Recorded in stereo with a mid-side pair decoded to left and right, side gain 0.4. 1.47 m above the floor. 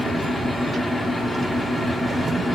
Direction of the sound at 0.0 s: 5° left.